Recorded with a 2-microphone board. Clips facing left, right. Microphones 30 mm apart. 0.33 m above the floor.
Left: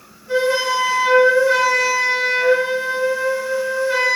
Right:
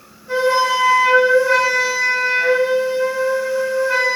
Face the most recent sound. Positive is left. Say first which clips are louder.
# right 2 dB
turn(degrees=-10)  # may be behind; listen again after turning